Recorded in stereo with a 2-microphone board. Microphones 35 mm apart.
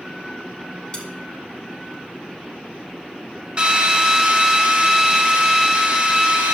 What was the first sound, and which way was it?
Cutlery clinking, 20° left (ahead or behind).